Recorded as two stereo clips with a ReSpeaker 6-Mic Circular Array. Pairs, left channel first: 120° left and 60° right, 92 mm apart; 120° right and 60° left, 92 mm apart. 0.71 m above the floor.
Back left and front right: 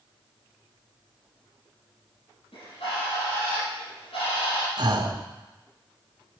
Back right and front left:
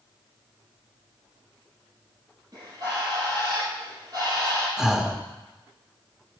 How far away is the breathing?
About 1.1 m.